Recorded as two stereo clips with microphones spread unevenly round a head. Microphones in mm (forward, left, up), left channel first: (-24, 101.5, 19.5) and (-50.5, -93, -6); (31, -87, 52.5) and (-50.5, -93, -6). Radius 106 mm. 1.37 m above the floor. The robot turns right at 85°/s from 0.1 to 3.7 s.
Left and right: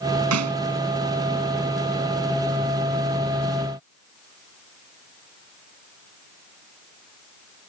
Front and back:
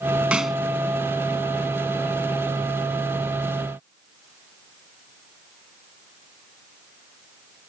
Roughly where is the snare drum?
Right.